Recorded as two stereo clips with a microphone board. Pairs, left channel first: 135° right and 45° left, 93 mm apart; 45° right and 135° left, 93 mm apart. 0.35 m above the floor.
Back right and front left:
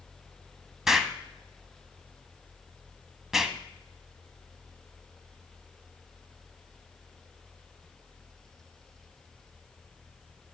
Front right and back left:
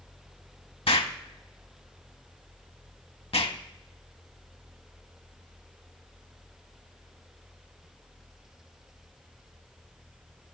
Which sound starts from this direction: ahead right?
An explosion, at 0.9 s.